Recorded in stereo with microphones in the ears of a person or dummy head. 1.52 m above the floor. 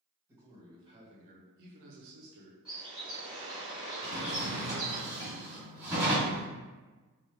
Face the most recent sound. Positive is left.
turn(degrees=-15)  # may be behind; listen again after turning